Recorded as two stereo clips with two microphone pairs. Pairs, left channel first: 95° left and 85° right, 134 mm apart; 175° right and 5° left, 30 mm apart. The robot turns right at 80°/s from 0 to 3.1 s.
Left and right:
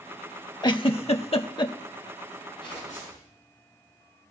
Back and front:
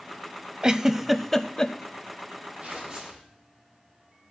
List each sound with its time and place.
0.6 s a giggle: 55° left, 0.6 m; by 1.7 s 140° left, 0.6 m
2.6 s tearing paper: 45° left, 5 m; by 3.3 s 85° left, 5 m